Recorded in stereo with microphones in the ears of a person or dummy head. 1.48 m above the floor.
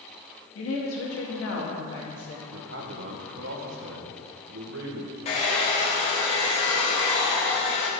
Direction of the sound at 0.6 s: 85° left.